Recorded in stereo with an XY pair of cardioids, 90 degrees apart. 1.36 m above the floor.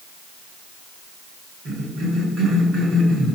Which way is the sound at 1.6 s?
70° right.